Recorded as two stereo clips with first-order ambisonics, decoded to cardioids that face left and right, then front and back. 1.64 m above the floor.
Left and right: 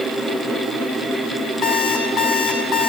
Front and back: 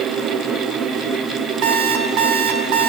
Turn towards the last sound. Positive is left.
turn(degrees=150)